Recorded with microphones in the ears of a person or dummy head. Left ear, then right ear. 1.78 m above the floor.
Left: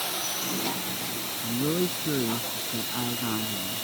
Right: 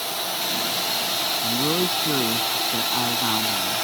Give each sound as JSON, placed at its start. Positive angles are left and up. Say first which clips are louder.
{"t": 1.4, "sound": "a man speaking", "louder": "right 2 dB", "side_deg": -50}